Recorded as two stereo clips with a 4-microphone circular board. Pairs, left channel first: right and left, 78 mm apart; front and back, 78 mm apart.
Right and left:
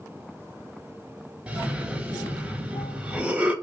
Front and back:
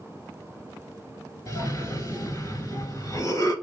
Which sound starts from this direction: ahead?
A cough, at 1.5 s.